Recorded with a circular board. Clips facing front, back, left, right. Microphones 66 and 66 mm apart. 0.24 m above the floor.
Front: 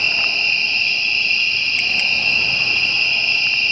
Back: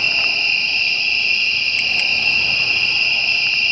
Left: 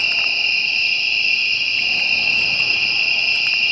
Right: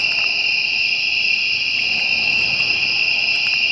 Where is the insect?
30° right, 3 m.